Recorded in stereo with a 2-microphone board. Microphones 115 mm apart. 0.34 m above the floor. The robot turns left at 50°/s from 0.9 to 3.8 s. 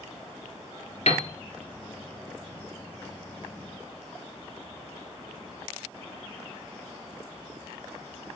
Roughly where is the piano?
Left.